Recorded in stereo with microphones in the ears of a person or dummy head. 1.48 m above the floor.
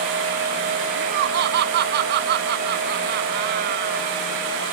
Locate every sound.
0.9 s laughter: 60° right (ahead or behind)